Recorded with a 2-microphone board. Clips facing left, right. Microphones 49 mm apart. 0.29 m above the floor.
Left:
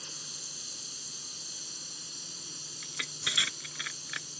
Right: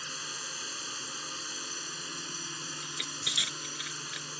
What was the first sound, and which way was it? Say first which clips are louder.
A drone: right 8 dB; 55° right (ahead or behind).